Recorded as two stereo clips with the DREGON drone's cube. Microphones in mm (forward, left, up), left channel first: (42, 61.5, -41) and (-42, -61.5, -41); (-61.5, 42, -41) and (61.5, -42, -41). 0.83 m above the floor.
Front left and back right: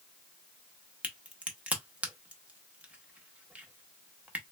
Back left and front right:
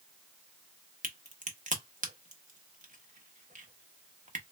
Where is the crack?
45° right, 0.7 m.